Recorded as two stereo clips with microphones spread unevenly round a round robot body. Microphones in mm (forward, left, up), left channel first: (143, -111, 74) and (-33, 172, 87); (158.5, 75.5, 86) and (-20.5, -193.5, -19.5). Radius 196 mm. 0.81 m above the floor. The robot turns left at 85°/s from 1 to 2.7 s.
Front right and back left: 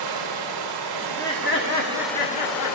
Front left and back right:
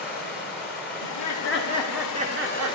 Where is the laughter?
40° left, 2.0 m; by 2.8 s 105° right, 2.0 m.